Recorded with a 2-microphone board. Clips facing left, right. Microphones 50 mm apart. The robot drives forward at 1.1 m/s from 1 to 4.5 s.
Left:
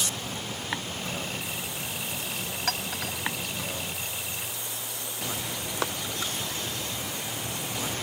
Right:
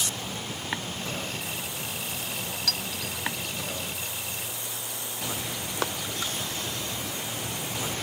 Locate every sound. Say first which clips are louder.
2.7 s a clink: left 4 dB; 35° left (ahead or behind); by 3.1 s 45° left (ahead or behind)